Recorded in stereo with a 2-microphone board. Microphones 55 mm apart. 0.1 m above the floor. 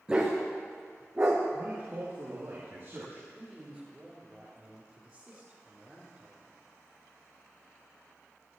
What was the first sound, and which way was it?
A dog barking, 20° right (ahead or behind).